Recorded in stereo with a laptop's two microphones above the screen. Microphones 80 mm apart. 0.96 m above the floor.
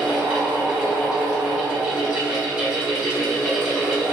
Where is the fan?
15° right (ahead or behind), 1.5 m.